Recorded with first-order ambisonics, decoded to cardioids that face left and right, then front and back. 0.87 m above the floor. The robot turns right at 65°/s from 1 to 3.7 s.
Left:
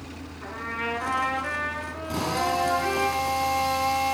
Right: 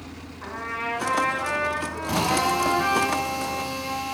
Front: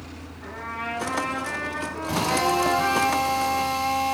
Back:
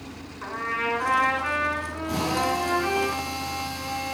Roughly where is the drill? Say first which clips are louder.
Right 3 dB, front 3 dB; right.